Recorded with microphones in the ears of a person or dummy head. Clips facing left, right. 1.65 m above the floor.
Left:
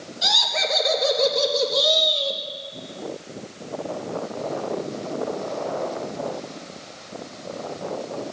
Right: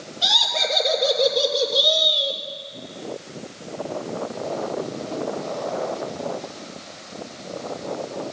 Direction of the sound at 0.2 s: 25° left (ahead or behind).